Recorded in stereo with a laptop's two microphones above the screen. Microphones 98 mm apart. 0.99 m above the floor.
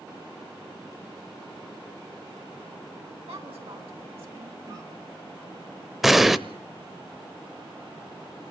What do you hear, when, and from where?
3.3 s a woman speaking: 80° right, 8.5 m; by 4.6 s 70° right (ahead or behind), 9 m
4.7 s a cough: 35° right (ahead or behind), 3.5 m
6.0 s an explosion: centre (ahead or behind), 0.7 m